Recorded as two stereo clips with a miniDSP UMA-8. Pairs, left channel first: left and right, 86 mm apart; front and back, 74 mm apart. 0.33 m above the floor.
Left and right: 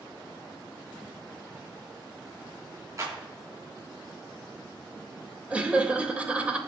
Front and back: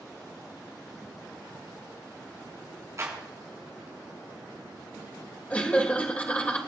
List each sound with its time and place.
3.0 s a clap: 135° right, 3.5 m
5.5 s laughter: 40° right, 1.4 m